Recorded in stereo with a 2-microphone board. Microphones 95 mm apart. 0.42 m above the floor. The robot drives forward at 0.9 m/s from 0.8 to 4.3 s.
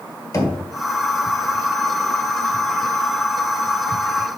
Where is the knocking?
35° left (ahead or behind), 1.4 m.